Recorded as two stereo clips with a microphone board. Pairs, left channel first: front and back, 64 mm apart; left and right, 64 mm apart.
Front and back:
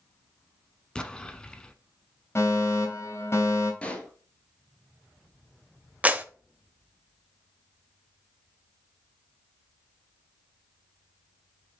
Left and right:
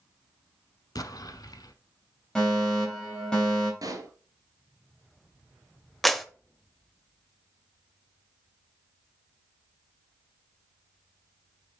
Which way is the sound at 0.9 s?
75° left.